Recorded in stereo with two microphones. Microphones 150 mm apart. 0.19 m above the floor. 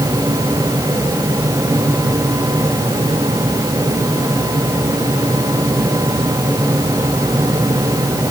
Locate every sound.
Only background noise.